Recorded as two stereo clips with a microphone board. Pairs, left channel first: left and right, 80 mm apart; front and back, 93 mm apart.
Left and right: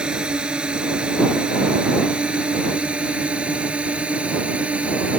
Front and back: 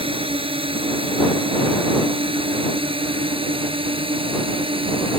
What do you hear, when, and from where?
0.0 s a drone: 170° right; by 5.2 s 165° right